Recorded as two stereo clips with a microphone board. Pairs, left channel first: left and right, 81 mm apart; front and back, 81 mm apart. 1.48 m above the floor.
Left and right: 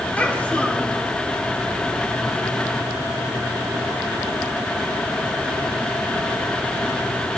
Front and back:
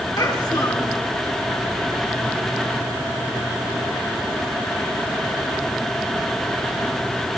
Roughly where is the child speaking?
Ahead left.